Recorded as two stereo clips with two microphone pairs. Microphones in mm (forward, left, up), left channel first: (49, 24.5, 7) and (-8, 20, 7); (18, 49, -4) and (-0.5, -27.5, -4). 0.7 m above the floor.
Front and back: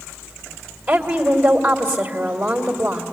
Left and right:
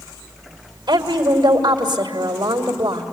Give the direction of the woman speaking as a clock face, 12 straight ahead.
4 o'clock.